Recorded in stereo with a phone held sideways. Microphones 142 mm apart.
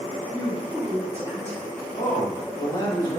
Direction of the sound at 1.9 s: 25° left (ahead or behind).